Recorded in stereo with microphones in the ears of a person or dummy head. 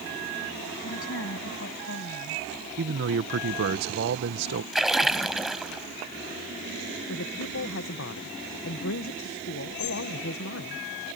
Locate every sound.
0.8 s a woman speaking: 75° left (ahead or behind)
2.8 s a man speaking: 55° right (ahead or behind)
4.7 s a splash: 5° right (ahead or behind)
7.1 s a man speaking: 70° left (ahead or behind)